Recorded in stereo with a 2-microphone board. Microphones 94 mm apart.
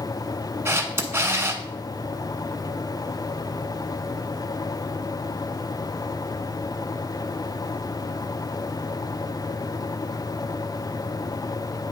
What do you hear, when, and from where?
0.7 s a camera shutter: 30° right (ahead or behind), 0.8 m